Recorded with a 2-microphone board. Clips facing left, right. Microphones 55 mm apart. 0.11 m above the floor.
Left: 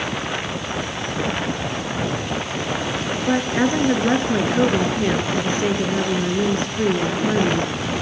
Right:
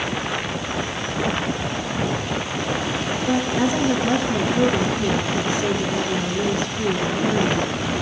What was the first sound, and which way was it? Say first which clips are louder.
A woman speaking: left 2 dB; 40° left (ahead or behind).